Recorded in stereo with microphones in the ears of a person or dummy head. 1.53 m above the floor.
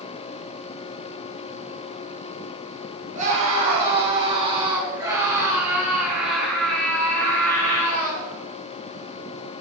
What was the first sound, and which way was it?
A scream, 40° right (ahead or behind).